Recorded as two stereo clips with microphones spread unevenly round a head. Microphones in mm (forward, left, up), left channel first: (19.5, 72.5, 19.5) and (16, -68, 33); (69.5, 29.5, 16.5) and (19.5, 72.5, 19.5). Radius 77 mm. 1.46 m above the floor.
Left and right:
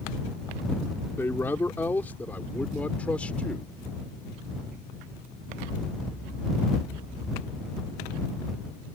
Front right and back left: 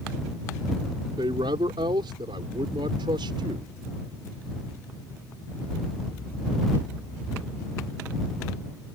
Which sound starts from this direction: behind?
A man speaking, at 1.2 s.